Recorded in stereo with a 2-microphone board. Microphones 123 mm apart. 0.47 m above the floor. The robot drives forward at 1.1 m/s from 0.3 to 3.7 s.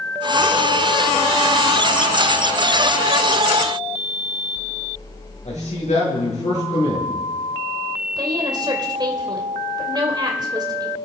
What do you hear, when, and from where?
5.5 s a man speaking: 65° left (ahead or behind), 6.5 m
8.2 s a woman speaking: 35° right (ahead or behind), 2 m